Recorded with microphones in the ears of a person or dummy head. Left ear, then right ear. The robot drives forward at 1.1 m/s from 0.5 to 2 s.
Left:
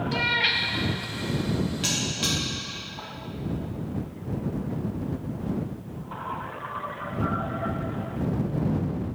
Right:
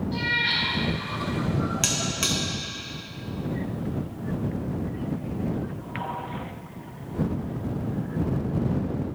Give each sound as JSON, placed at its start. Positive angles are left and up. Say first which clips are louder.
{"t": 0.1, "sound": "a cat meowing", "louder": "left 1 dB", "side_deg": 40, "distance_m": 0.5}
{"t": 1.8, "sound": "a buzzer", "louder": "even", "side_deg": -35, "distance_m": 0.9}